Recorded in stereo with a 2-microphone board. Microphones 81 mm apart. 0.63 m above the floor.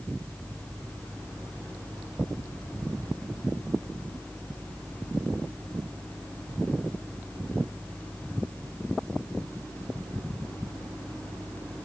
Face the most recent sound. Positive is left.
No sound to turn to.